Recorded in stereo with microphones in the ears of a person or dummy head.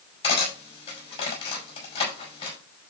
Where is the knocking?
I don't hear knocking.